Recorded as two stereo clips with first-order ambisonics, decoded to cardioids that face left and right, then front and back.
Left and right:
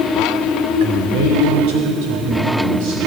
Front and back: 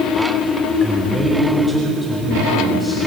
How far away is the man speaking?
About 3.5 m.